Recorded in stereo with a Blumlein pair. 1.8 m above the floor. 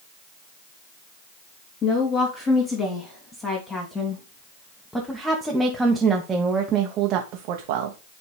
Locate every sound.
1.8 s a woman speaking: 30° left, 3 m; by 8.0 s 55° right, 1.3 m